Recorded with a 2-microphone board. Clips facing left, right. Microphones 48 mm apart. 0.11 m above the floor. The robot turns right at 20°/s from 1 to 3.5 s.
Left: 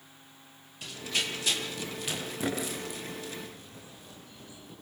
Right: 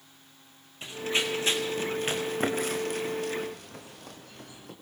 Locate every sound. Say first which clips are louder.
0.8 s running footsteps: right 4 dB; 25° right (ahead or behind), 6 m; by 4.7 s 60° right (ahead or behind), 7 m